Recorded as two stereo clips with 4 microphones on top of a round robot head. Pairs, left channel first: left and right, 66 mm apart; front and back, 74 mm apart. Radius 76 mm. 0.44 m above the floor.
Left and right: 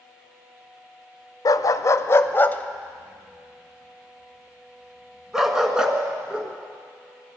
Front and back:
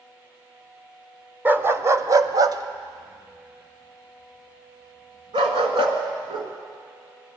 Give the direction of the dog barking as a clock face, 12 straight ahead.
8 o'clock.